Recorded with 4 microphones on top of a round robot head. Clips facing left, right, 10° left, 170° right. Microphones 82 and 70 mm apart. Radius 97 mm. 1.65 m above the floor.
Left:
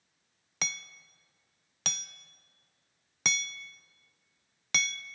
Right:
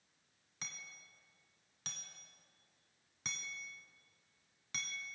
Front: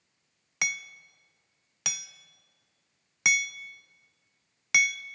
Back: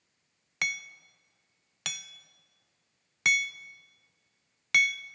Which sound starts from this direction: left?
Hammering, at 0.6 s.